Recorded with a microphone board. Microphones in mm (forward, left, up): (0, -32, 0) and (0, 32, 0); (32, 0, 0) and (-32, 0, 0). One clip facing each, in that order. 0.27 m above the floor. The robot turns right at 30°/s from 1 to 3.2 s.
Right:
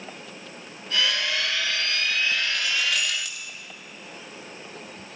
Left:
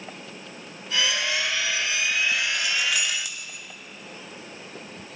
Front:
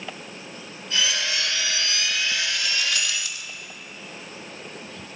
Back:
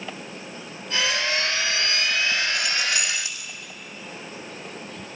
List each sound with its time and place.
2.5 s keys jangling: 155° left, 0.8 m; by 3.5 s 175° left, 0.8 m